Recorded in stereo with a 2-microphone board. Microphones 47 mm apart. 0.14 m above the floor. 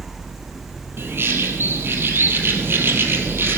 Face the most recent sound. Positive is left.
turn(degrees=-55)  # may be behind; listen again after turning